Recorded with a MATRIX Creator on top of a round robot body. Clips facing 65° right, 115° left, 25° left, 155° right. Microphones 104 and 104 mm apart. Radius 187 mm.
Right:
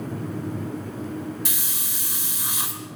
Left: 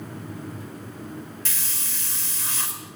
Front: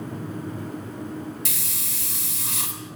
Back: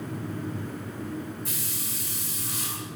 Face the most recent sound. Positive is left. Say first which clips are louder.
# right 3 dB, even
turn(degrees=10)